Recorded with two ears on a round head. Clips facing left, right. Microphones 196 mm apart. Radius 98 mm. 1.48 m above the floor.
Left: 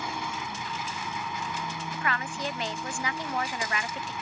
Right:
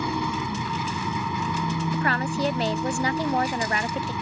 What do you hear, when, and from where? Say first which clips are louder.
0.0 s an engine running: right 8 dB; 80° right
1.9 s a woman speaking: right 5 dB; 30° right (ahead or behind)